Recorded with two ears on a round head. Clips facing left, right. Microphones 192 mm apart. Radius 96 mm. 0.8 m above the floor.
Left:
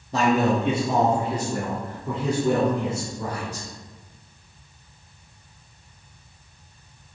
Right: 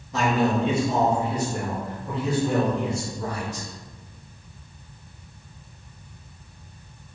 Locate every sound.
0.1 s a man speaking: 30° left (ahead or behind), 1.2 m; by 3.7 s 80° left, 3 m